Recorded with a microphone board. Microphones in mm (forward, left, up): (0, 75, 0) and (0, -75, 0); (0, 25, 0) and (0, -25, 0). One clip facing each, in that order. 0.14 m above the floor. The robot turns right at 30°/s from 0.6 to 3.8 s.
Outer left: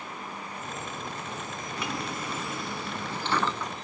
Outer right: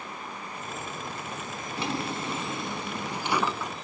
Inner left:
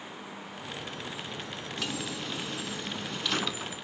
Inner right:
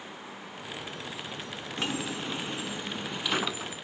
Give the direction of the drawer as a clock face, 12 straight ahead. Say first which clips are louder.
Outer right 4 dB, inner right 3 dB; 2 o'clock.